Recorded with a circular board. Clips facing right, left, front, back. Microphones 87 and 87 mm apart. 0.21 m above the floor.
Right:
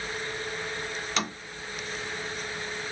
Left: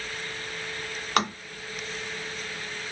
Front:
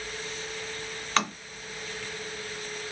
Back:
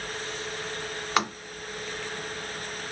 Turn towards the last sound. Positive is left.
turn(degrees=105)